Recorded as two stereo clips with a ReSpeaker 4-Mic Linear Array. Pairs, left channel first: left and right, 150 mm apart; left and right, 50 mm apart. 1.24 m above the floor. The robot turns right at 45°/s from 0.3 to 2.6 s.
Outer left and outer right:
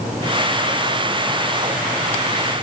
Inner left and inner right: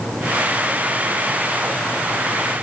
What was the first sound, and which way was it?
Only background noise.